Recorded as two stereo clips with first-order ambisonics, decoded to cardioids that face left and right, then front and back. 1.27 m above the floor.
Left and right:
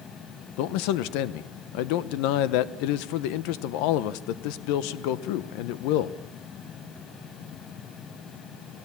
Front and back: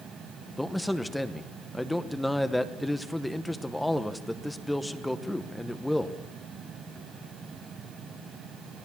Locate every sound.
0.6 s a man speaking: 90° left, 0.9 m